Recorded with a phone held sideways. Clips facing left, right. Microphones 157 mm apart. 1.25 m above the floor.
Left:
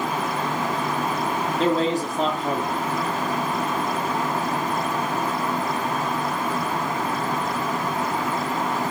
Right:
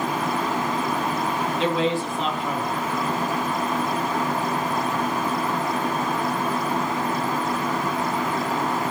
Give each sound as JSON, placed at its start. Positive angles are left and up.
{"t": 1.6, "sound": "a man speaking", "side_deg": 40, "distance_m": 0.6}